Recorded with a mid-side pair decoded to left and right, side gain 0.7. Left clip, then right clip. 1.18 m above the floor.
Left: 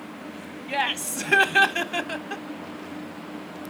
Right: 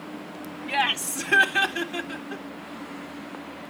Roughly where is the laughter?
Ahead.